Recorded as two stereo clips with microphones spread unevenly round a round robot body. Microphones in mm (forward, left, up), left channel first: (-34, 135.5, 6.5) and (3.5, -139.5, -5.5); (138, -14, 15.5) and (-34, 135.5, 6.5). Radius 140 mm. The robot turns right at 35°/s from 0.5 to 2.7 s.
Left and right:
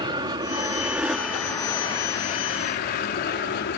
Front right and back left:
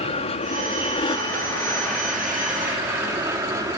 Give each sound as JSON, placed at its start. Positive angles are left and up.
{"t": 0.0, "sound": "an aircraft", "azimuth_deg": -30}